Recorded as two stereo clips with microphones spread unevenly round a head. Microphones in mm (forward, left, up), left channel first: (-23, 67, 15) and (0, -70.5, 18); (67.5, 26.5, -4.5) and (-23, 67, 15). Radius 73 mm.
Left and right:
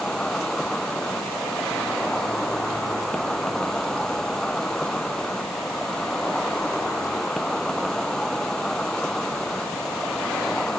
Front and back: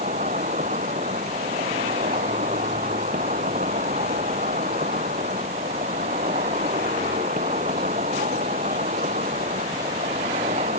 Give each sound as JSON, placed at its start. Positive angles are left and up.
{"t": 0.0, "sound": "an insect", "azimuth_deg": -175}